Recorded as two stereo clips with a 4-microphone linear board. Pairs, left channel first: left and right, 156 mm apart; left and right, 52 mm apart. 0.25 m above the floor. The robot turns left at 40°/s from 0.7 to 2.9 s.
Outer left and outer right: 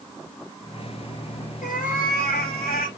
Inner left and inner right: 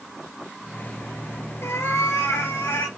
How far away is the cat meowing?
About 2 m.